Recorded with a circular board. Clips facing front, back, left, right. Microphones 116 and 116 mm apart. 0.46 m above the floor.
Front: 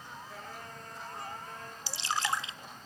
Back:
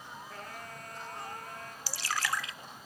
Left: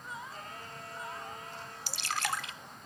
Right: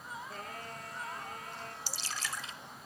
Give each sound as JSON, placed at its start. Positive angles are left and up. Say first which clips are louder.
{"t": 0.3, "sound": "singing", "louder": "back 1 dB, right 2 dB", "azimuth_deg": -85, "distance_m": 2.5}
{"t": 1.9, "sound": "dripping", "louder": "front 2 dB, left 10 dB", "azimuth_deg": 65, "distance_m": 0.6}